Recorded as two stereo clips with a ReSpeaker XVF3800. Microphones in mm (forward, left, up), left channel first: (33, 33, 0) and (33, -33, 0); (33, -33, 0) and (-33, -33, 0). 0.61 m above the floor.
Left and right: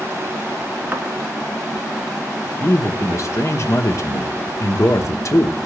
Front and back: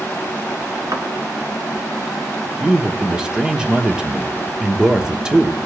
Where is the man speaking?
110° left, 0.9 m.